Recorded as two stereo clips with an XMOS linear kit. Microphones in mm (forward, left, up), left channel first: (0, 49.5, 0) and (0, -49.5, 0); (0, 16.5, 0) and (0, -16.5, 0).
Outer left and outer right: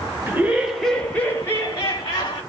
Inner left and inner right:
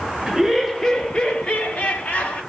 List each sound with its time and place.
0.3 s laughter: 20° right (ahead or behind), 0.9 m; by 2.4 s 45° left (ahead or behind), 1.4 m